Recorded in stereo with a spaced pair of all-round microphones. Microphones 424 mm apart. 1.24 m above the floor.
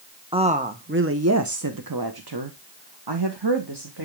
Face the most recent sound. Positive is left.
turn(degrees=-65)  # may be behind; listen again after turning